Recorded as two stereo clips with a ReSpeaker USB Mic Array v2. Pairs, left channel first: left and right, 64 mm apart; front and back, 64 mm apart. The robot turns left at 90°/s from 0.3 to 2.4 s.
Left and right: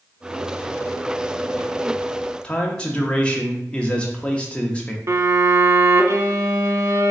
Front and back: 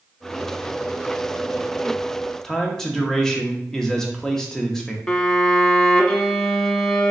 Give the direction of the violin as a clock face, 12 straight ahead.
3 o'clock.